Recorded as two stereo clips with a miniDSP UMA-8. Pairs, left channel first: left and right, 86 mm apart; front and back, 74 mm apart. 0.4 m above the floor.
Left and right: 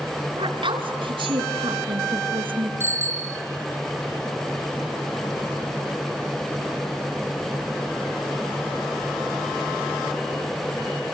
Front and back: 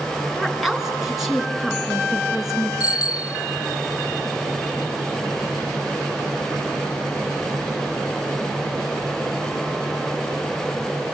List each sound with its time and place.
0.4 s a woman speaking: 90° right, 4.5 m
2.8 s a bicycle bell: 30° right, 2.5 m